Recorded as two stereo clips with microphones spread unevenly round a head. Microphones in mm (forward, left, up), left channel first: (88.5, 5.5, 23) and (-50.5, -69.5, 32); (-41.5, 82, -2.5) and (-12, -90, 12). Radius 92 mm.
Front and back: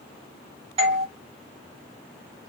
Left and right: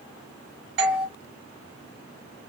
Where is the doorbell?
100° right, 2.5 m.